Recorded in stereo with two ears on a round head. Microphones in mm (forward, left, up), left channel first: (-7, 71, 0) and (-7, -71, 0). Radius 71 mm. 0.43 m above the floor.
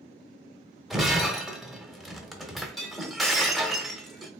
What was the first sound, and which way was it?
Breaking glass, centre (ahead or behind).